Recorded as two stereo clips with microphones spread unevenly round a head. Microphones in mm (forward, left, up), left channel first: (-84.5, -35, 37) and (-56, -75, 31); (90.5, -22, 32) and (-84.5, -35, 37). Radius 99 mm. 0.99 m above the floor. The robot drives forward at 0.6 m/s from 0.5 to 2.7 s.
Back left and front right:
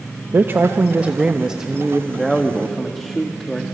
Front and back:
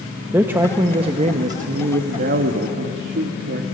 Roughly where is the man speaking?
Right.